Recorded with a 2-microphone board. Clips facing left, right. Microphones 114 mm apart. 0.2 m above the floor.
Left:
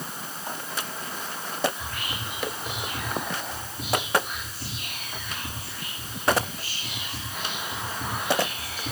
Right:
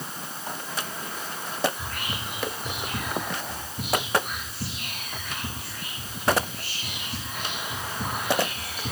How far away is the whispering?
About 4 m.